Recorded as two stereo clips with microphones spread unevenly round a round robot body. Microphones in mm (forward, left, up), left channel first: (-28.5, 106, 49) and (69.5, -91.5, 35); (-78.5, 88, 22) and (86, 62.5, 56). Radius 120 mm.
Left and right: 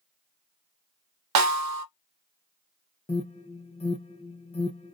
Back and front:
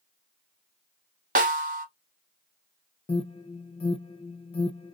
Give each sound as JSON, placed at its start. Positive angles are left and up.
{"t": 1.4, "sound": "a snare drum", "azimuth_deg": -65, "distance_m": 0.8}
{"t": 3.1, "sound": "an alarm", "azimuth_deg": 175, "distance_m": 0.7}